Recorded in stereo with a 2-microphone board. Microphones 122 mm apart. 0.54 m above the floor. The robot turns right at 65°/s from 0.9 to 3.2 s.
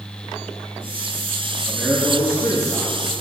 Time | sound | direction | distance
1.6 | a man speaking | 175° left | 6.5 m